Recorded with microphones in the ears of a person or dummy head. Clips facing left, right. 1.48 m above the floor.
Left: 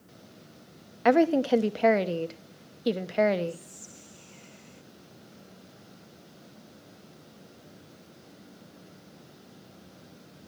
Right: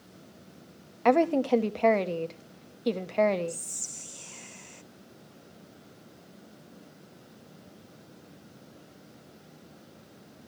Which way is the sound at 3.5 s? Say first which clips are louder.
Left 1 dB; 70° right (ahead or behind).